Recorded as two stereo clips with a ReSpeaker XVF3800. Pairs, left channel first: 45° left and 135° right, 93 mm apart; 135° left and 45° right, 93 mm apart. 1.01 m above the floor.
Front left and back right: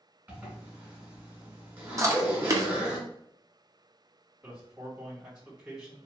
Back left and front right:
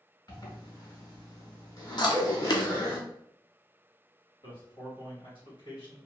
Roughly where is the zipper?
Behind.